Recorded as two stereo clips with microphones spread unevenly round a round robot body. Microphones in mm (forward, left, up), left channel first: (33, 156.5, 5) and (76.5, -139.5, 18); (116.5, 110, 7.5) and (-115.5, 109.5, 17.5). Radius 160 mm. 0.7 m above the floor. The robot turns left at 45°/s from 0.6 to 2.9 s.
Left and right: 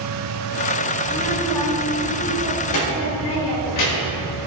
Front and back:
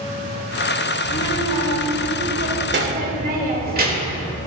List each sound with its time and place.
1.0 s a child speaking: 150° right, 2.5 m; by 4.3 s 125° left, 2.5 m